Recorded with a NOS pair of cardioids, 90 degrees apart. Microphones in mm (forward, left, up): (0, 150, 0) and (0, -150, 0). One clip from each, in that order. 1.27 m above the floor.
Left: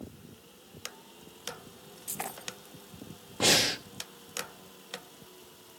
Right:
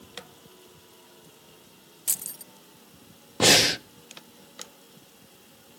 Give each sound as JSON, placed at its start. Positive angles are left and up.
{"t": 2.1, "sound": "keys jangling", "azimuth_deg": -65, "distance_m": 0.8}
{"t": 3.4, "sound": "breathing", "azimuth_deg": -25, "distance_m": 0.7}